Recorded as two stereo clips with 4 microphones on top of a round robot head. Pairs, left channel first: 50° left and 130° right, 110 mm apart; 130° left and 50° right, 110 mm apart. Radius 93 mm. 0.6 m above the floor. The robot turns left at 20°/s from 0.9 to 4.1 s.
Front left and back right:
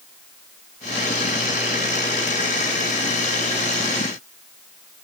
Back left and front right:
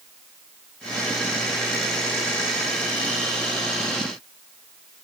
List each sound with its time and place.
Only background noise.